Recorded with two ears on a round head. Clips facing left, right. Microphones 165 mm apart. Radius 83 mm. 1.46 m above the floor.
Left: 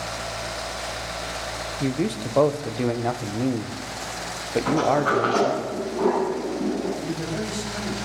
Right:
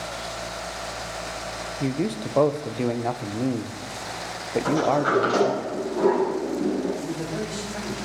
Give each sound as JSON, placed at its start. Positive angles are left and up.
{"t": 1.8, "sound": "a man speaking", "side_deg": 0, "distance_m": 0.8}
{"t": 4.7, "sound": "a sliding door", "side_deg": -85, "distance_m": 8.0}
{"t": 7.0, "sound": "a man speaking", "side_deg": -25, "distance_m": 5.5}